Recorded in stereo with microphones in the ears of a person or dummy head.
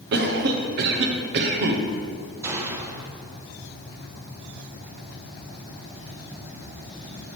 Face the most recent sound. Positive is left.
turn(degrees=-20)  # may be behind; listen again after turning